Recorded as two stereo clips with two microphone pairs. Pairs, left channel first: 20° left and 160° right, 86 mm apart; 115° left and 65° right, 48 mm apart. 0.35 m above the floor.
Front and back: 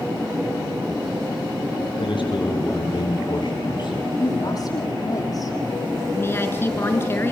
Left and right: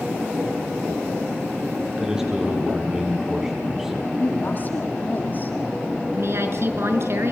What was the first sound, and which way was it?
A man speaking, 5° left.